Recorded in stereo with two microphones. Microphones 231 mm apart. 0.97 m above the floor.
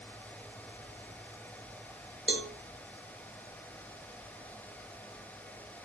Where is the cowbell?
55° right (ahead or behind), 1.8 m.